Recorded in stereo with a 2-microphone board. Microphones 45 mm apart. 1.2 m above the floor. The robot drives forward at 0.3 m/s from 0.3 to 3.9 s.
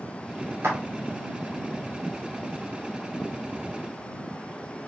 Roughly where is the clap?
Right.